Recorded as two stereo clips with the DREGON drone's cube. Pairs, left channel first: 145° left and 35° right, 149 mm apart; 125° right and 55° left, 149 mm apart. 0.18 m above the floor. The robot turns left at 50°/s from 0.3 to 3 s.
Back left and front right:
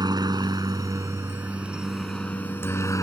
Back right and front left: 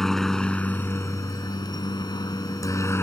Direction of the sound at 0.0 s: 40° right.